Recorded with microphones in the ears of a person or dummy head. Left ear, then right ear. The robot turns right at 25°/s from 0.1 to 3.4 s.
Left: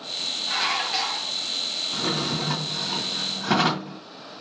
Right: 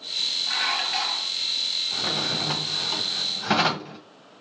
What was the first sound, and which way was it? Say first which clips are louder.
Dishes clattering: even; 25° right (ahead or behind).